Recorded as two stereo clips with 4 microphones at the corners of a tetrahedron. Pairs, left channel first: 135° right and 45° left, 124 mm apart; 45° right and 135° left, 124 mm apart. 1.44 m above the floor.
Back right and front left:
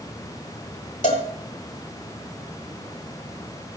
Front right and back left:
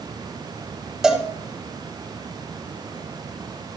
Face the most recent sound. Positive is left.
turn(degrees=-140)